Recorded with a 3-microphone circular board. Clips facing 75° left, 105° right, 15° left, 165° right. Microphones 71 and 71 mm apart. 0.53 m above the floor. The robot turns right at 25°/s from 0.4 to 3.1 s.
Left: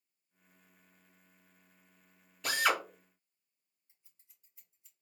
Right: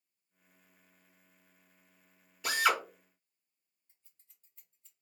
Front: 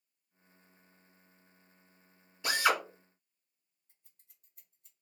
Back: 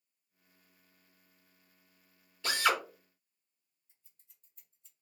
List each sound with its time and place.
2.4 s a drill: 25° right, 1.1 m; by 2.8 s 15° right, 1.1 m
3.9 s scissors: straight ahead, 1.6 m